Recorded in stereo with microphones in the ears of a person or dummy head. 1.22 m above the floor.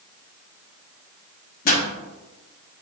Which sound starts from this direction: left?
A pop, at 1.6 s.